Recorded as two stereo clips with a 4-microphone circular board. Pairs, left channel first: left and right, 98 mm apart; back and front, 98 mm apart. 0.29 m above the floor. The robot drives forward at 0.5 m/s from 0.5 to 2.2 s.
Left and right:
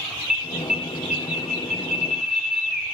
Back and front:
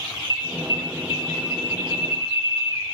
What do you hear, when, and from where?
0.3 s an alarm: 170° right, 1.0 m; by 2.8 s 175° right, 1.7 m